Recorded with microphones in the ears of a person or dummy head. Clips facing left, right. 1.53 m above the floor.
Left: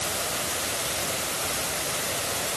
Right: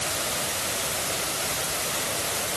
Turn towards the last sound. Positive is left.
No sound to turn to.